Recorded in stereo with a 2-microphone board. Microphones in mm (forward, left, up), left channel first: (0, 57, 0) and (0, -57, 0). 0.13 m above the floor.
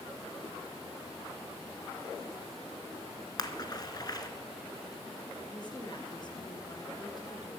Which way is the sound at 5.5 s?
40° left (ahead or behind).